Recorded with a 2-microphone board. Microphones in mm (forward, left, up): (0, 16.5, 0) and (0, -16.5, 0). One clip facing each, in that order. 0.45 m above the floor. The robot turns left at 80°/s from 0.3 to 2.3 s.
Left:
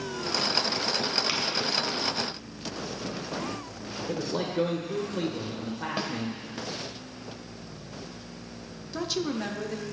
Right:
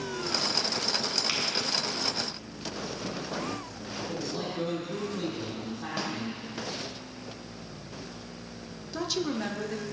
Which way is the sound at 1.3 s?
5° left (ahead or behind).